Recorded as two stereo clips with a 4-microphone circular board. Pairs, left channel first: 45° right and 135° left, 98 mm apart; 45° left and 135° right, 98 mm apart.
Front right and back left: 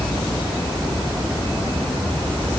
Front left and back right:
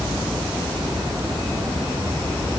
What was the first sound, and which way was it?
Only background noise.